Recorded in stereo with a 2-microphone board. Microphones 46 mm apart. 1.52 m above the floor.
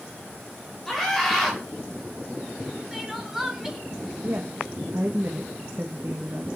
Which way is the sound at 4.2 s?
50° right (ahead or behind).